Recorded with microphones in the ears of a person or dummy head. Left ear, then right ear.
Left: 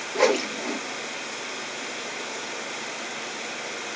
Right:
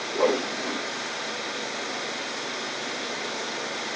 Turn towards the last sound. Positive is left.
turn(degrees=65)  # may be behind; listen again after turning